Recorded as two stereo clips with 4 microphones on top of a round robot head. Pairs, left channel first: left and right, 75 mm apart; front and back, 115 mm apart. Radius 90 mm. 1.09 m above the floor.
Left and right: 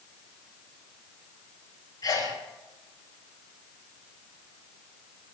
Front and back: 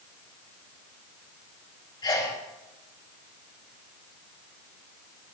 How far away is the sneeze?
About 4 m.